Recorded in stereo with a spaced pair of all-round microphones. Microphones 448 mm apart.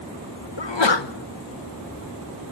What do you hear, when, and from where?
0.6 s a sneeze: 70° left (ahead or behind), 1.1 m